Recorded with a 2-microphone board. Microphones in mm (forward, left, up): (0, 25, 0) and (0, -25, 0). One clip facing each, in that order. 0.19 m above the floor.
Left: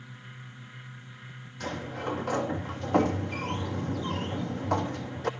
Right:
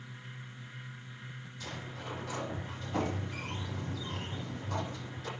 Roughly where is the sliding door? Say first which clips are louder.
Left 10 dB; left.